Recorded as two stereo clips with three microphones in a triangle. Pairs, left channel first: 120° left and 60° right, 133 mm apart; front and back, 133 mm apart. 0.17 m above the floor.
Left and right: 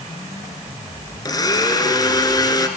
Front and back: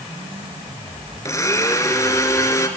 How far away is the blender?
About 1.5 m.